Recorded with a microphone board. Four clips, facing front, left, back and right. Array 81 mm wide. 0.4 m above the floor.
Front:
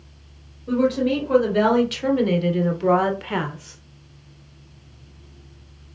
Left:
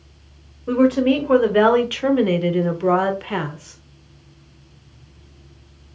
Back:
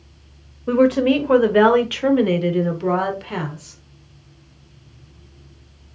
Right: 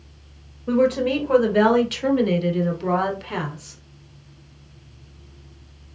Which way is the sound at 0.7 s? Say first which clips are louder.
Left 3 dB, back 5 dB; 165° left.